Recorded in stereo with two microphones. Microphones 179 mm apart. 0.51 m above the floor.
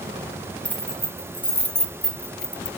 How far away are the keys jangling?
About 2.5 m.